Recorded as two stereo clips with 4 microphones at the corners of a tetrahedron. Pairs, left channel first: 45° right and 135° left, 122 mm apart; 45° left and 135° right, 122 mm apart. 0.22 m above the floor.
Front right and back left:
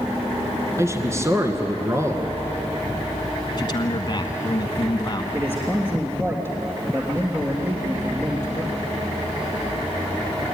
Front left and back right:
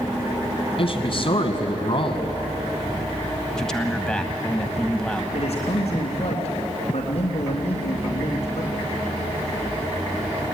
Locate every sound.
0.8 s a man speaking: 75° left, 2.5 m
3.6 s a man speaking: 35° right, 1.4 m
5.3 s a man speaking: 70° left, 3 m